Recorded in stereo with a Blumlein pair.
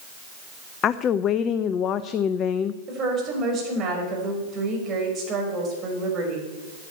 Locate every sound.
0.8 s a woman speaking: 30° left, 0.5 m
2.9 s a woman speaking: 30° right, 5 m